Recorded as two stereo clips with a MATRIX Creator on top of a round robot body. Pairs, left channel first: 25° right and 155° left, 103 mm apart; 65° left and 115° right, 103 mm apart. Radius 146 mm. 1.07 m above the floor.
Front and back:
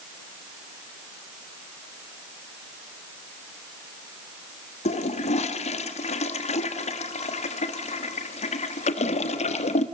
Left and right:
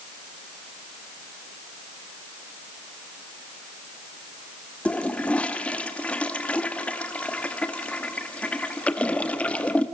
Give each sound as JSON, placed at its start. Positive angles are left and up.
{"t": 4.8, "sound": "a toilet flushing", "azimuth_deg": -10, "distance_m": 1.2}